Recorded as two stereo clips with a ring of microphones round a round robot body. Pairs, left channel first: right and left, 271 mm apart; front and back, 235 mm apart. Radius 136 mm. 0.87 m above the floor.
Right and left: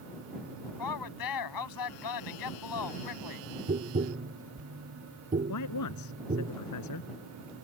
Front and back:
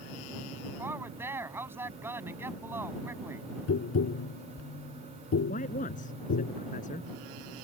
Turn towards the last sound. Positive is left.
turn(degrees=-65)